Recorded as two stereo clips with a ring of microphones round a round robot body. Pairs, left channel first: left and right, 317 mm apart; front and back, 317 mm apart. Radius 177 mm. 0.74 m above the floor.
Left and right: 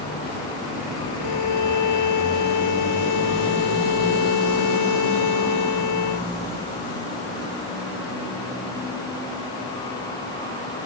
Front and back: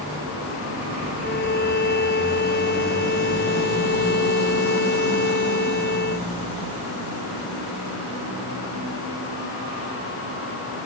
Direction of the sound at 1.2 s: 60° left.